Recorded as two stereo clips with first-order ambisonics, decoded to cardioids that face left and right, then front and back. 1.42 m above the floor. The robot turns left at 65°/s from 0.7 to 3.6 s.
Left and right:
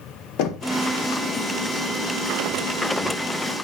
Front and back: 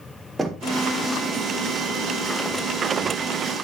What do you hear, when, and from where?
0.4 s knocking: 95° left, 1.2 m